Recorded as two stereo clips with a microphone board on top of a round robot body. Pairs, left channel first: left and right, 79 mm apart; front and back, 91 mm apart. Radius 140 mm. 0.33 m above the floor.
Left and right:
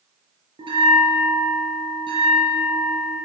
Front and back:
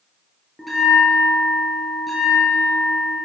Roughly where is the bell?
Right.